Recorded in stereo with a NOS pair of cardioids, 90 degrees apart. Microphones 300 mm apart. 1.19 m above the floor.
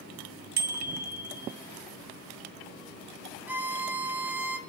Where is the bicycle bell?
65° right, 2.5 m.